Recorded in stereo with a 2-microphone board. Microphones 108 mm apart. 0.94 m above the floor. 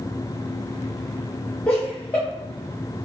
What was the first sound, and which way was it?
Laughter, 15° left (ahead or behind).